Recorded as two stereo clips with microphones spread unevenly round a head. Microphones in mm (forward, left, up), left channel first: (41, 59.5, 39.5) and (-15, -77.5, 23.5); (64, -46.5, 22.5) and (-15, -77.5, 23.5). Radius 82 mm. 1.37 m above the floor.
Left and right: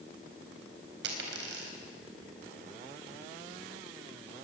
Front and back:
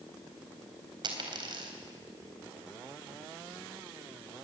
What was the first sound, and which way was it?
A dropped coin, 130° right.